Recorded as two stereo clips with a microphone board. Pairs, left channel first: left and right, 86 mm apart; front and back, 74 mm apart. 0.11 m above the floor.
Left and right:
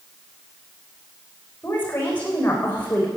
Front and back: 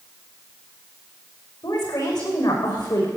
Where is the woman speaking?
20° left, 6.5 m.